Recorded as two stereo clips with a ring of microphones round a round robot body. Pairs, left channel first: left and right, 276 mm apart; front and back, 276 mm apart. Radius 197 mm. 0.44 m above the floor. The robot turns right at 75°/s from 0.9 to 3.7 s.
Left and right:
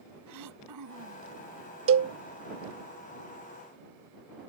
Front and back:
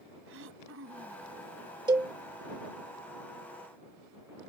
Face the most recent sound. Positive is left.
turn(degrees=30)